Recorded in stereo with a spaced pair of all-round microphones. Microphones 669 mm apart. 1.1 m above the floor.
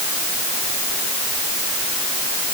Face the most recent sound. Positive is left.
No sound to turn to.